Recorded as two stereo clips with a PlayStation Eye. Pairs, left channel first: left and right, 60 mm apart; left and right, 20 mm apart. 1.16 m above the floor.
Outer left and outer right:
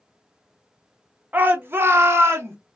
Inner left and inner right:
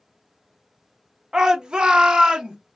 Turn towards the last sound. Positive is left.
turn(degrees=-45)  # may be behind; listen again after turning